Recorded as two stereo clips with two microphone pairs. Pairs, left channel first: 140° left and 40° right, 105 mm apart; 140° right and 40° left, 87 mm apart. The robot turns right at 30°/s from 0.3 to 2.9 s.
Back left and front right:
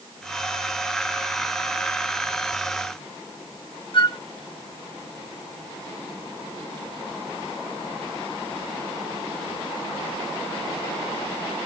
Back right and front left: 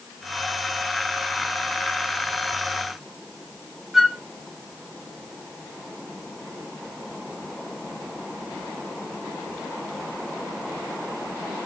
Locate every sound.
3.9 s a flute: 130° left, 0.6 m